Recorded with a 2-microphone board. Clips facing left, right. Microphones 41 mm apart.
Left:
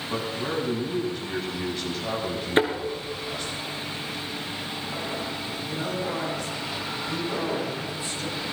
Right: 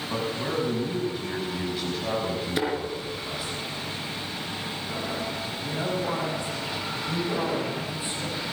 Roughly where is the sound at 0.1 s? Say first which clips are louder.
Even; centre.